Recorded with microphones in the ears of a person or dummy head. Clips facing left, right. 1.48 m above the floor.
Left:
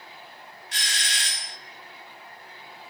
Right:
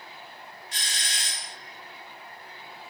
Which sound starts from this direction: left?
A doorbell, at 0.7 s.